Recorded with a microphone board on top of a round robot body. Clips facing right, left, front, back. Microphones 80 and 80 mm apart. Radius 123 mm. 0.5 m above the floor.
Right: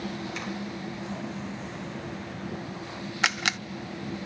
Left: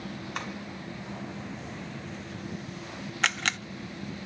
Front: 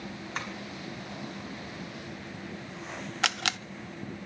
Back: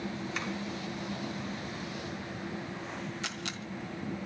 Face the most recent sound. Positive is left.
turn(degrees=-10)